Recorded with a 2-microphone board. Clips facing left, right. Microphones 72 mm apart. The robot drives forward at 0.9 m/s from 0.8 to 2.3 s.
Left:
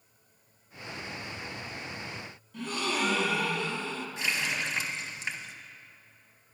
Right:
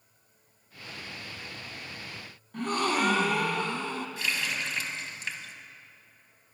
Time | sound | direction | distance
2.5 | a gasp | 50° right (ahead or behind) | 0.7 m
4.2 | a running tap | 25° left (ahead or behind) | 0.7 m